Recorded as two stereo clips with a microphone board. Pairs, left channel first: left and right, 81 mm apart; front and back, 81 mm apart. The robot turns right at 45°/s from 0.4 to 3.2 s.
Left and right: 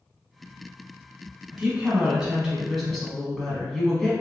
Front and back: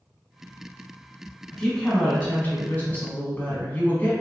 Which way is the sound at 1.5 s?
65° right.